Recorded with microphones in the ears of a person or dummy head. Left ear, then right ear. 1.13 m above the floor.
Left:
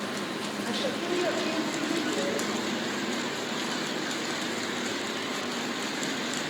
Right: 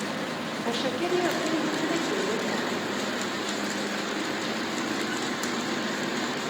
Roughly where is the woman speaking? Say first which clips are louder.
Right 3 dB; right.